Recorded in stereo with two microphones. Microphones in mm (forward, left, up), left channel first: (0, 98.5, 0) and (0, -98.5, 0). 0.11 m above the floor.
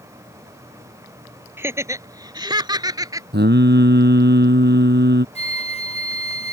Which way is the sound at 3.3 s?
60° right (ahead or behind).